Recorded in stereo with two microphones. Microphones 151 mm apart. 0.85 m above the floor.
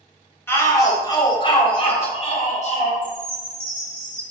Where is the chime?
10° left (ahead or behind), 3.5 m.